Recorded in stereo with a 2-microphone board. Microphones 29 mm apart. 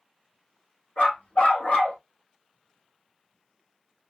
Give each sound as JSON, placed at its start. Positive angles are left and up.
{"t": 1.0, "sound": "a dog barking", "side_deg": 55, "distance_m": 3.0}